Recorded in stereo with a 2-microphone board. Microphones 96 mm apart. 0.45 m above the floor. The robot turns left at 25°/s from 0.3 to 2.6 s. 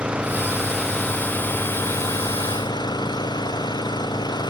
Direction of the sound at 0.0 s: 170° right.